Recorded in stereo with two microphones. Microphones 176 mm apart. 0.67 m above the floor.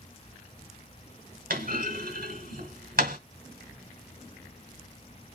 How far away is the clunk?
About 0.9 m.